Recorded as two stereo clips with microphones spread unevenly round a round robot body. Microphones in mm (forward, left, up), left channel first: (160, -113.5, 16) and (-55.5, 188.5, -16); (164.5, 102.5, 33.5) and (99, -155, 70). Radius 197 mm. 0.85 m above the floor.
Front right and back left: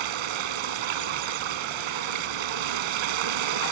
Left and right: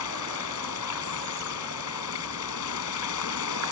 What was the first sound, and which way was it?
Running water, 125° left.